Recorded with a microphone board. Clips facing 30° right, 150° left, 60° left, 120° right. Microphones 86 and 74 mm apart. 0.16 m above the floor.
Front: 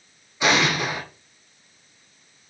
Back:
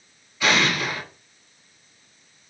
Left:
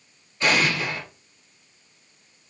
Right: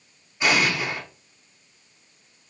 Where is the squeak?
I don't hear a squeak.